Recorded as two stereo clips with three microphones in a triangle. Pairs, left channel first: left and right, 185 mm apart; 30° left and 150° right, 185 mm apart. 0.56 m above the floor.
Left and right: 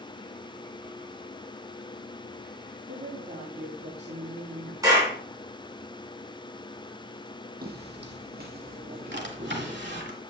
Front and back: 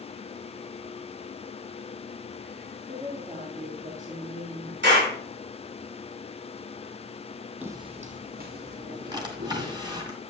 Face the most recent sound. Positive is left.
turn(degrees=-80)